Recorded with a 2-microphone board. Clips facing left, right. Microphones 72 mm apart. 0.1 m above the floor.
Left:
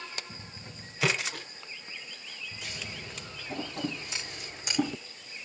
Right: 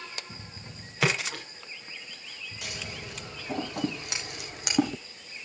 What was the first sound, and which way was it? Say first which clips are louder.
A splash: right 2 dB; 85° right.